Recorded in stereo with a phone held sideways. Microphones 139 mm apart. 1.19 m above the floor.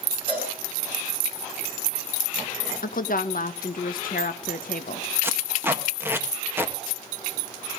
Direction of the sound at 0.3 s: 40° left (ahead or behind).